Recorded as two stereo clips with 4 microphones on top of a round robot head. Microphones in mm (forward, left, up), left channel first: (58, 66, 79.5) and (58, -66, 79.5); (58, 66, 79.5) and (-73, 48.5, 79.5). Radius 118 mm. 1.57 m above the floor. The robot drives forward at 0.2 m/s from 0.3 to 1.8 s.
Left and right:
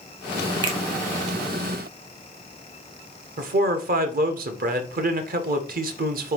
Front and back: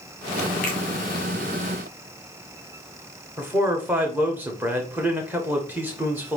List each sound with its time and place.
0.6 s a finger snap: 35° right, 1.0 m
3.4 s a man speaking: 95° right, 0.8 m